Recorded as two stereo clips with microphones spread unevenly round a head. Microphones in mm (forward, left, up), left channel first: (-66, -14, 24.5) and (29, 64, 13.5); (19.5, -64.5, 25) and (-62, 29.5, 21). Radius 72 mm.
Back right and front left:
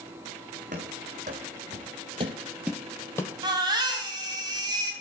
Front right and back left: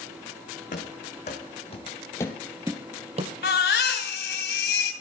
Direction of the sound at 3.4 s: 25° right.